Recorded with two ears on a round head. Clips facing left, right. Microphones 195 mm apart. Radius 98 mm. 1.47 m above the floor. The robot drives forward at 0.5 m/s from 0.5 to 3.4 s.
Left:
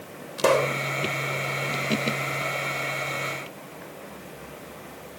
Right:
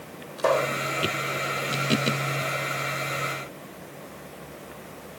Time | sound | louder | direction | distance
0.4 | a pop | left 2 dB | 40° left (ahead or behind) | ?